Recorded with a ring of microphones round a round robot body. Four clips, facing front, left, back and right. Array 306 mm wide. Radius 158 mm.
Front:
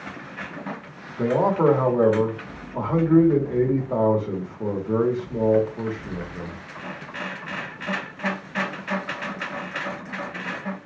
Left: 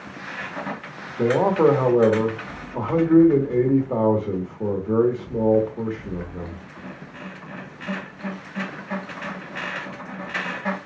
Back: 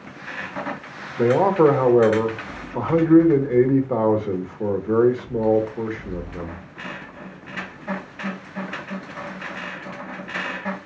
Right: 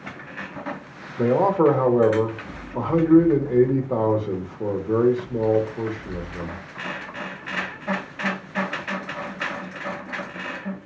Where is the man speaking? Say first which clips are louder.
Even, back 4 dB; 175° left, 1.0 m.